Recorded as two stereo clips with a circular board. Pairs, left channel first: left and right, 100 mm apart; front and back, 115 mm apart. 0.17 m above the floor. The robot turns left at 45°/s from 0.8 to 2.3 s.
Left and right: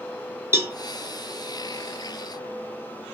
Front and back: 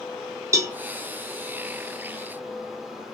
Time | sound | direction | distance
0.5 | a cowbell | 135° right | 0.7 m